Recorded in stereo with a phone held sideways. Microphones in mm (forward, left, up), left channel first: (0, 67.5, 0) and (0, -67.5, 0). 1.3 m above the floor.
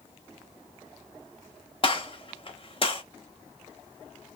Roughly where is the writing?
I don't hear writing.